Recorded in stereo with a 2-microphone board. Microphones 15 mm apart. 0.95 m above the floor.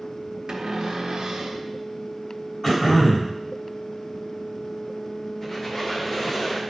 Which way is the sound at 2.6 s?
15° left (ahead or behind).